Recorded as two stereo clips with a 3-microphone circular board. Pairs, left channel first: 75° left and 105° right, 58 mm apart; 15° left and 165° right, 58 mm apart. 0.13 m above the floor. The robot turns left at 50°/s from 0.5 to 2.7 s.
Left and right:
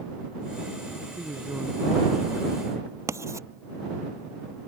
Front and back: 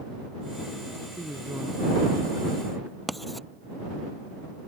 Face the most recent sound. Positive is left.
turn(degrees=-75)